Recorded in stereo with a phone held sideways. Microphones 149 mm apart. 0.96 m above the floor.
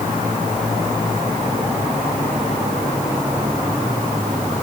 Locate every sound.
Only background noise.